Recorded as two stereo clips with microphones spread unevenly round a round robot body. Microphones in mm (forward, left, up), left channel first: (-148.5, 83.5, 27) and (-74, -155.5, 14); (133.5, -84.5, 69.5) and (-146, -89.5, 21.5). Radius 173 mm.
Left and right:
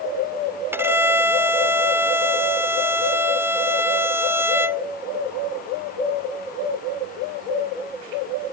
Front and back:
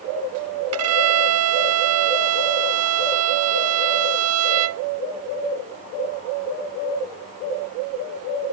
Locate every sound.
0.7 s a violin: 155° right